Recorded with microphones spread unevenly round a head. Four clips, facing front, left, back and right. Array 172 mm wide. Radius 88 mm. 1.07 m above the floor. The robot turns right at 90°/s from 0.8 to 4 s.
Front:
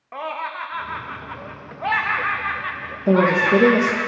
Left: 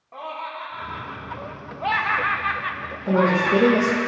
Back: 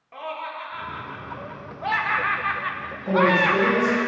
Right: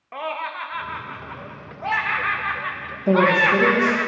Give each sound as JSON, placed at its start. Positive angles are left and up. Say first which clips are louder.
{"t": 0.1, "sound": "laughter", "louder": "right 4 dB, front 4 dB", "azimuth_deg": -30, "distance_m": 0.7}
{"t": 3.1, "sound": "a woman speaking", "louder": "right 2 dB, front 3 dB", "azimuth_deg": -30, "distance_m": 0.9}